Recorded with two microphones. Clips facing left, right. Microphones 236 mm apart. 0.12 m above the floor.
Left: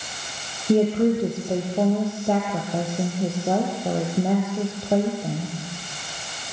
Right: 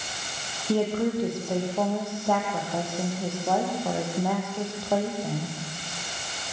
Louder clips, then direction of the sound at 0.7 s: Left 6 dB; 20° left (ahead or behind).